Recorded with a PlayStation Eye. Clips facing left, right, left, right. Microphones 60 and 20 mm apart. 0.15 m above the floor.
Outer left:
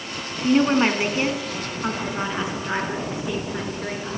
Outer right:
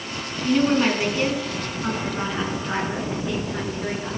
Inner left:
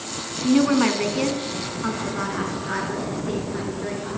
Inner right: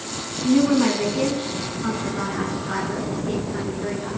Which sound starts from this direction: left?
A woman speaking, at 0.4 s.